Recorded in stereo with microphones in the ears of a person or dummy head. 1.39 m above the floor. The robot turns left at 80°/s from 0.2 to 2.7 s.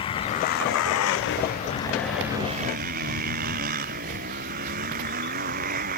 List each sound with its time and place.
0.0 s a motorcycle: 155° left; by 6.0 s 45° right